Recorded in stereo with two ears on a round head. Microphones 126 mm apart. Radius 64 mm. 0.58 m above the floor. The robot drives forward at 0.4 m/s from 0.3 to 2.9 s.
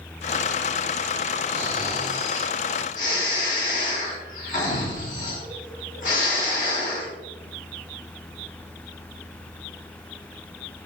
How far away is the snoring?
About 2 m.